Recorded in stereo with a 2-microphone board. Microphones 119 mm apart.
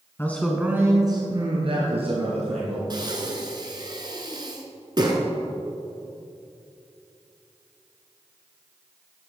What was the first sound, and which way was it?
A man speaking, 20° left (ahead or behind).